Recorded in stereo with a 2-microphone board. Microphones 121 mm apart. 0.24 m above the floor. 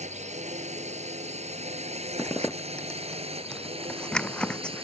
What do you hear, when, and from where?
0.0 s a drone: 65° right (ahead or behind); by 4.8 s 50° right (ahead or behind)
2.2 s a zipper: 10° left (ahead or behind)